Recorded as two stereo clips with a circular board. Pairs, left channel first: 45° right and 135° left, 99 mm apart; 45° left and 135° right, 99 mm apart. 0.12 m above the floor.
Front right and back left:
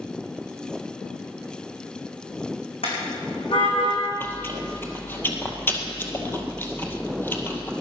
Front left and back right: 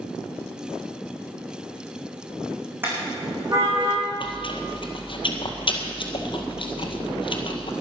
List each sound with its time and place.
2.8 s a car horn: 65° right, 4 m; by 4.0 s 90° right, 4.5 m
4.2 s chewing: 20° left, 1.8 m